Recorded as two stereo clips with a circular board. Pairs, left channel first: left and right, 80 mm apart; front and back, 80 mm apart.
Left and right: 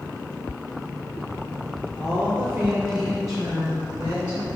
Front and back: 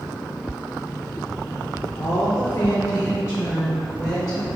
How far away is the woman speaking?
About 0.8 m.